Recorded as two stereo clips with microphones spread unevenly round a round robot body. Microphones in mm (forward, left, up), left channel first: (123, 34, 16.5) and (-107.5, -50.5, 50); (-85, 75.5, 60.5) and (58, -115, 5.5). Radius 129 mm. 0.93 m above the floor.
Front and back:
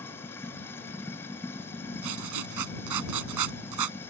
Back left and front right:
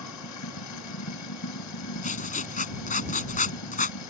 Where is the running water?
105° left.